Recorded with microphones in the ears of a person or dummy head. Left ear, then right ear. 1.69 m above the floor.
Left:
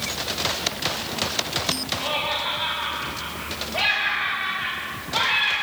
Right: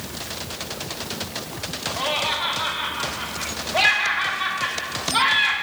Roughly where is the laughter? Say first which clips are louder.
Right 2 dB; right.